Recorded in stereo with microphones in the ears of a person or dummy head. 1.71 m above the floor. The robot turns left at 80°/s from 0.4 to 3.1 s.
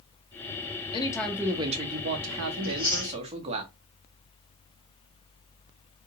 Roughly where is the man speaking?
Ahead left.